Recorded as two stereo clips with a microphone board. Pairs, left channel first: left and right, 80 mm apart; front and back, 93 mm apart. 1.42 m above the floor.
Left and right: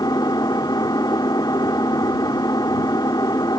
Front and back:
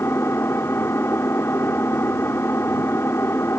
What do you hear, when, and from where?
0.0 s an engine running: 60° left